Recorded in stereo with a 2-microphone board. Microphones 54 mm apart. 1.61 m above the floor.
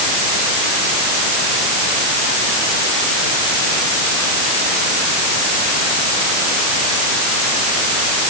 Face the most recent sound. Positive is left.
No sound to turn to.